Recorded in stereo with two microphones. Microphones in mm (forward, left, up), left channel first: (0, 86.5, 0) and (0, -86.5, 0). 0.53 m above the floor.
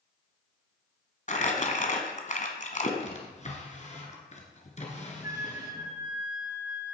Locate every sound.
1.3 s crumpling: 45° left (ahead or behind), 1.4 m
3.0 s a drawer: 40° left (ahead or behind), 1.9 m
5.2 s a flute: 20° right (ahead or behind), 1.4 m